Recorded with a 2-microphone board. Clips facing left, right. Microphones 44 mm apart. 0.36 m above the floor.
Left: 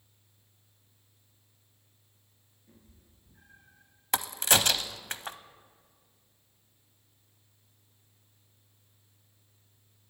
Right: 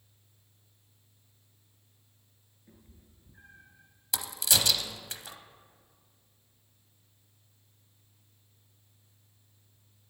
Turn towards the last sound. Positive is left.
turn(degrees=50)  # may be behind; listen again after turning